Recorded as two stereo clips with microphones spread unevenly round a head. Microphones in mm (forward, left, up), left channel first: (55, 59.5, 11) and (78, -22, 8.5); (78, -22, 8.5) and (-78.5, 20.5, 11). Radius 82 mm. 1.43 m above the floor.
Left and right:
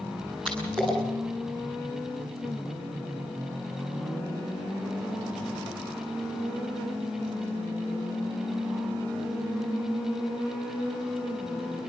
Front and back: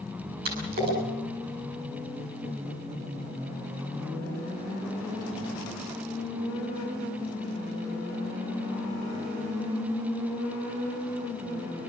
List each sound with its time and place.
0.5 s a splash: 160° right, 9 m